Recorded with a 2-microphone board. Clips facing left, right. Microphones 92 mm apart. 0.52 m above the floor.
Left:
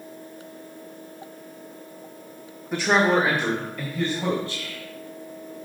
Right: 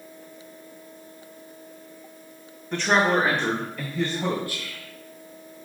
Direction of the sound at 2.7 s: 5° left (ahead or behind).